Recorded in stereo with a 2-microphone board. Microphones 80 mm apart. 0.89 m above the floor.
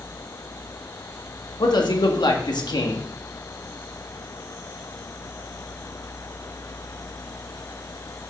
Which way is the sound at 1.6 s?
65° left (ahead or behind).